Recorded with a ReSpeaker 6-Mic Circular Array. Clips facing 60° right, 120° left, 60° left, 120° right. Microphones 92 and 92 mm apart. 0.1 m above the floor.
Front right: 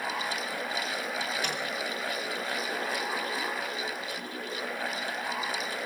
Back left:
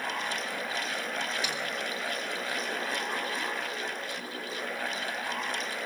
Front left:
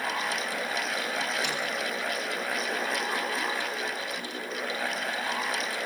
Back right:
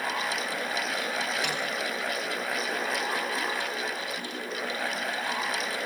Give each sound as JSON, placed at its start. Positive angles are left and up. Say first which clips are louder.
{"t": 1.4, "sound": "a snare drum", "louder": "front right 1 dB, back right 1 dB", "azimuth_deg": -100, "distance_m": 5.5}